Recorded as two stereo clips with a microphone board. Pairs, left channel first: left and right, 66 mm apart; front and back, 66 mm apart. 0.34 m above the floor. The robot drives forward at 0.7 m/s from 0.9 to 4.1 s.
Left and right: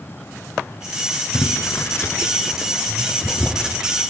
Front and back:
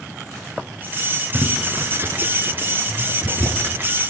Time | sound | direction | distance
1.3 | boiling | 105° left | 0.5 m